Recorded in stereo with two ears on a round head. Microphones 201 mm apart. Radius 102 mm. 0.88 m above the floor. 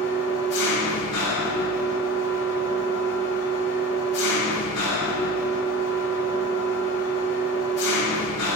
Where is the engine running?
55° left (ahead or behind), 3 m.